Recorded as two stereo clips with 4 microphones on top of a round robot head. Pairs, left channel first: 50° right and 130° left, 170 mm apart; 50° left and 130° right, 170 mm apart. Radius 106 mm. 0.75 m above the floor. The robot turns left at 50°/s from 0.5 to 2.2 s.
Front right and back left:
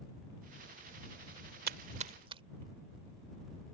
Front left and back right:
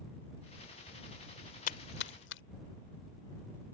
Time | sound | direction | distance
1.7 | a splash | 95° left | ?